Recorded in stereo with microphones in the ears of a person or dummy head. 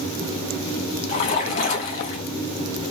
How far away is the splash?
About 0.9 m.